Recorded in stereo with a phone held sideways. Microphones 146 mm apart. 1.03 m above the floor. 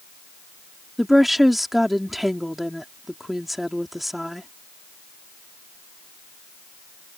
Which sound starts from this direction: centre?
A woman speaking, at 1.0 s.